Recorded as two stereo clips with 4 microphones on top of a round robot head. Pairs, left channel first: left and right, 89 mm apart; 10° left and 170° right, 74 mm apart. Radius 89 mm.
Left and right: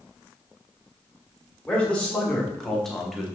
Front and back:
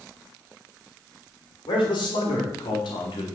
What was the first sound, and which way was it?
A man speaking, 10° left.